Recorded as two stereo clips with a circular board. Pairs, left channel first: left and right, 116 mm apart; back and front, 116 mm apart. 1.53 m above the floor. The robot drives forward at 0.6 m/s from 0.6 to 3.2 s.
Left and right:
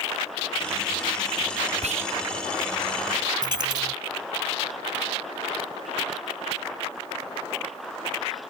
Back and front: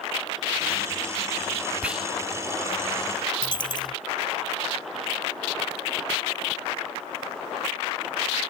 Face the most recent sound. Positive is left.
turn(degrees=-135)